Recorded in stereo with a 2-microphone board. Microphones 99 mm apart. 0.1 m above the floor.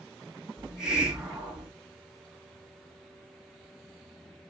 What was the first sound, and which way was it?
A hiss, 10° right (ahead or behind).